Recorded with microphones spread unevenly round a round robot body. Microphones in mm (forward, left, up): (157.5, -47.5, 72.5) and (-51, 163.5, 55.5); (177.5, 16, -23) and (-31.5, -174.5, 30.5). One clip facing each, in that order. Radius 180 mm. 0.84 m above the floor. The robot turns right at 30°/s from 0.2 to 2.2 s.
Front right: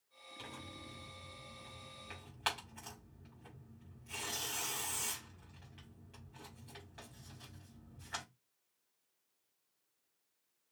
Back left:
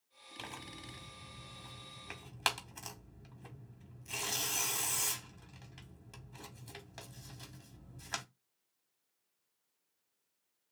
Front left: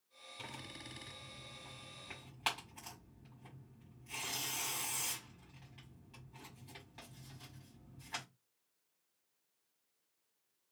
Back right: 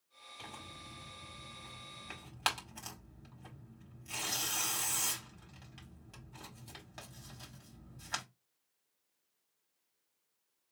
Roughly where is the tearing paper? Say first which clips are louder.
Back left 1 dB, front left 1 dB; behind left.